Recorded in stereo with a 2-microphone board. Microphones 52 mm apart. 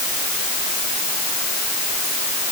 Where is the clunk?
I don't hear a clunk.